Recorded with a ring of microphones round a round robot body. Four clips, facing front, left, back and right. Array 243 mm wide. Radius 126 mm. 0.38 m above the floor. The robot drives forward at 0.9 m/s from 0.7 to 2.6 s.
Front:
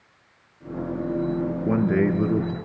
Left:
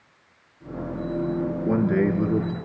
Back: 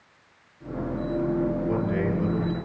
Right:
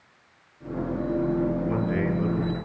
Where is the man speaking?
25° left, 5 m.